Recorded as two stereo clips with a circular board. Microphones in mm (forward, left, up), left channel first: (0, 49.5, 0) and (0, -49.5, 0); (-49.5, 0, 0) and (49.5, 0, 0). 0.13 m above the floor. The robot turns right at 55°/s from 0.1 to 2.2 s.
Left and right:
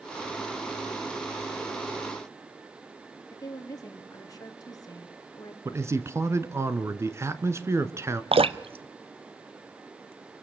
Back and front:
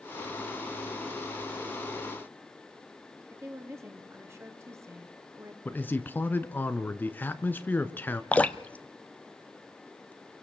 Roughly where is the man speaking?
Behind right.